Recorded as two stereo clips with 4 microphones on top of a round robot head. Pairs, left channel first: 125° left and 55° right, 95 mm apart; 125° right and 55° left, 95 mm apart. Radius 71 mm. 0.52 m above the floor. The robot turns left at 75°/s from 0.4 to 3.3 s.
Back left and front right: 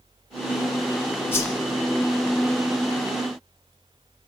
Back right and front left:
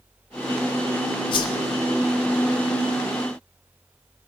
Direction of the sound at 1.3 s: 165° right.